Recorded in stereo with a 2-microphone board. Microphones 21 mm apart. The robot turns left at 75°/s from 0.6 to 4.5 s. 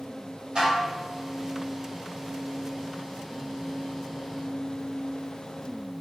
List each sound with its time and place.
0.6 s dishes clattering: 50° right (ahead or behind), 1.5 m; by 1.0 s 25° right (ahead or behind), 1.5 m